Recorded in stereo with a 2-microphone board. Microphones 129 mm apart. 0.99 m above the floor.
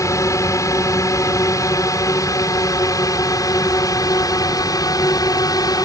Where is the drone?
25° left (ahead or behind); by 5.8 s 30° left (ahead or behind).